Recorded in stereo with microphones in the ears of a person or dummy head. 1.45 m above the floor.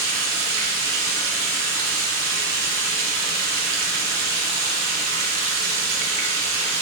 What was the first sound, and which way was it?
Running water, 70° right (ahead or behind).